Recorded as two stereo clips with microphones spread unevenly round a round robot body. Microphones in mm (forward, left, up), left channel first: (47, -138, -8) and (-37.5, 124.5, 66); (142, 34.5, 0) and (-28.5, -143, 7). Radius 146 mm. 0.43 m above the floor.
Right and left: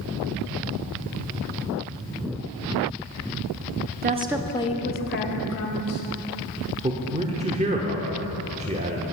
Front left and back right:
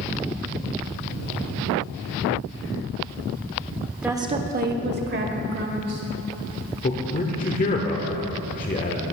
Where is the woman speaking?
145° left, 0.7 m; by 6.0 s 95° right, 2 m.